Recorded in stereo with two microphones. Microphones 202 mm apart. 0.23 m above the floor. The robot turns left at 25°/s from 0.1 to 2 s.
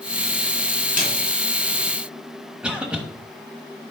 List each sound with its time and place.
1.0 s a snare drum: 40° right (ahead or behind), 2.5 m; by 1.1 s 45° right (ahead or behind), 2.5 m
2.6 s a cough: 5° right (ahead or behind), 1.0 m